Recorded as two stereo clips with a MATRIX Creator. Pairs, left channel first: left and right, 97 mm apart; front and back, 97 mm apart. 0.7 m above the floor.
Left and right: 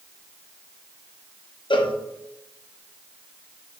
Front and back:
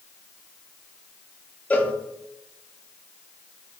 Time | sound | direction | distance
1.7 | a cowbell | 70° left | 0.6 m